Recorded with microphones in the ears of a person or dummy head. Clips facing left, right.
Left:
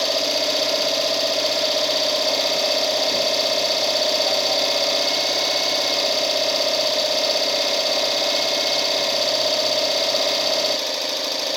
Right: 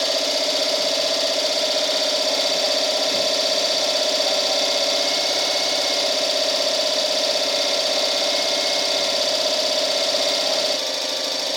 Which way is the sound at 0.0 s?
15° left (ahead or behind).